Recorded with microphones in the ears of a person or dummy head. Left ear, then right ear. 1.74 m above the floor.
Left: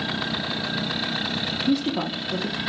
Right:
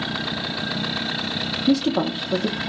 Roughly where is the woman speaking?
Right.